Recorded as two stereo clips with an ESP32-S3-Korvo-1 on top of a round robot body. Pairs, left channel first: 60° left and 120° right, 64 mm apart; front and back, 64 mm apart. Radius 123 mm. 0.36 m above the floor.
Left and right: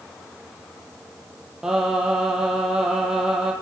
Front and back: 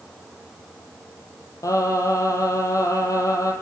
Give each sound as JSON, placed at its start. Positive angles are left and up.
{"t": 1.6, "sound": "singing", "azimuth_deg": -40, "distance_m": 8.5}